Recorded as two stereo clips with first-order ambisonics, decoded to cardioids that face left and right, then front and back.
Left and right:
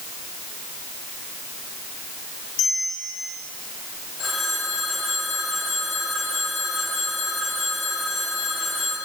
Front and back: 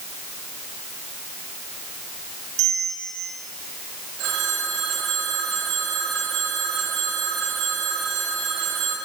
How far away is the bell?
About 6 m.